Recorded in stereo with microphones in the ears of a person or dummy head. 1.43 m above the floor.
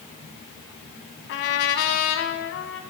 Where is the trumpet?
55° left (ahead or behind), 1.3 m.